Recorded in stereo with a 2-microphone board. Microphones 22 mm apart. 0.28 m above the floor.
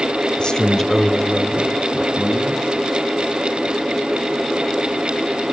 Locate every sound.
0.4 s a man speaking: 40° left (ahead or behind), 1.1 m; by 2.8 s 60° right (ahead or behind), 1.8 m